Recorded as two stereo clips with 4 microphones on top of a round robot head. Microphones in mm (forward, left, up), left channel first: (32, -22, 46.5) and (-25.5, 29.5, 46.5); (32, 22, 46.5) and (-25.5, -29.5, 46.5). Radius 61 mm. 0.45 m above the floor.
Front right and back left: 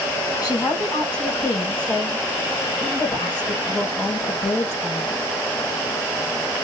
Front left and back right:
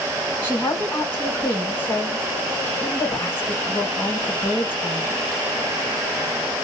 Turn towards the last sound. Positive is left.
turn(degrees=-15)